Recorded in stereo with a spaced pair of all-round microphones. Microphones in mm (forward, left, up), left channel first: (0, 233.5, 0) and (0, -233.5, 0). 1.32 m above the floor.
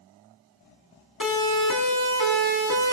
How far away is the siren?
About 4.5 m.